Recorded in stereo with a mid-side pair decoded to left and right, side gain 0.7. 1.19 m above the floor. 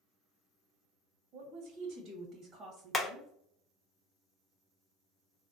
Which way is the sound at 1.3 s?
70° right.